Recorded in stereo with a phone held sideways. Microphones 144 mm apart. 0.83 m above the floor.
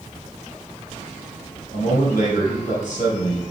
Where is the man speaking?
65° left (ahead or behind), 3.5 m.